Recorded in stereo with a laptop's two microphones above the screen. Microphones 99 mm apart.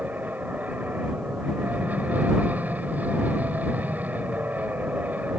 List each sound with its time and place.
0.0 s an aircraft: 15° right (ahead or behind)